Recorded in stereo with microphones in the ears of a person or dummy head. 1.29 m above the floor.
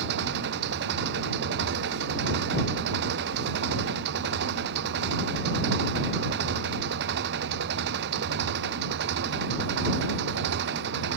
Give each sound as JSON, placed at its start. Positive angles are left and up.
{"t": 0.0, "sound": "an engine running", "side_deg": -65}